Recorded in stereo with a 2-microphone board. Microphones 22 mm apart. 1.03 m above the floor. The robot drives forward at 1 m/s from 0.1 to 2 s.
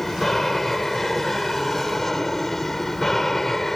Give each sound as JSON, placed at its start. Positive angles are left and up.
{"t": 0.0, "sound": "an aircraft", "side_deg": 15}